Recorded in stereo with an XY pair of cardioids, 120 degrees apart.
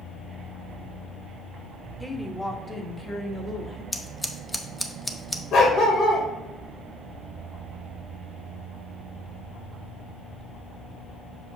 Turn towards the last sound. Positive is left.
turn(degrees=65)